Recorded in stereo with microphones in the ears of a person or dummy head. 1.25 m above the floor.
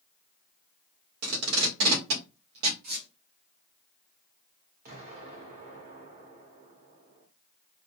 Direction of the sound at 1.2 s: 85° right.